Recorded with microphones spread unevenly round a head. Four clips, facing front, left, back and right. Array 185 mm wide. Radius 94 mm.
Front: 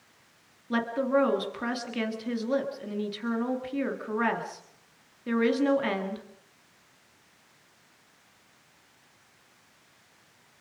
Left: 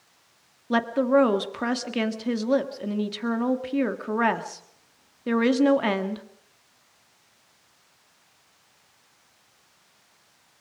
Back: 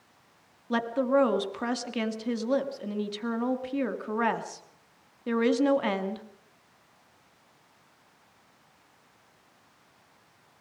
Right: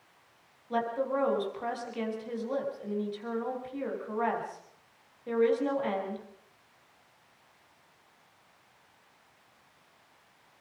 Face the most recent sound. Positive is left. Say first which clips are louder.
# left 9 dB, back 1 dB
turn(degrees=95)